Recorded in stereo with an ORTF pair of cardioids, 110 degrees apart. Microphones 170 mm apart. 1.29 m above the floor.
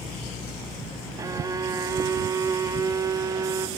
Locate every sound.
1.2 s a violin: 20° right, 1.1 m